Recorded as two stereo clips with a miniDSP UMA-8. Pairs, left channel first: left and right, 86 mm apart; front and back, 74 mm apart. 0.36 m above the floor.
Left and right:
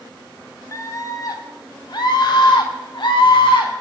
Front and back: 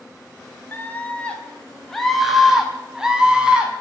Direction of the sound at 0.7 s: 55° left.